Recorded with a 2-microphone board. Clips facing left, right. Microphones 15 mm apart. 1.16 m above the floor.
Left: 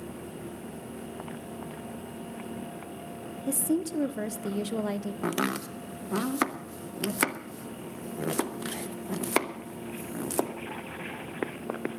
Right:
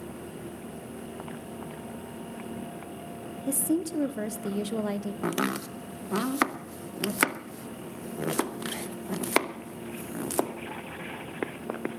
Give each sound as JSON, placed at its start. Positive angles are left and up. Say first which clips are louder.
{"t": 3.5, "sound": "a woman speaking", "louder": "even", "side_deg": 5, "distance_m": 0.6}
{"t": 5.2, "sound": "chopping", "louder": "even", "side_deg": -10, "distance_m": 0.8}